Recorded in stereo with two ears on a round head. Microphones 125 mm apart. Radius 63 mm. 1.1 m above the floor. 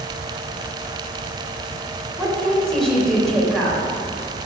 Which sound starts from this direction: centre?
A woman speaking, at 2.2 s.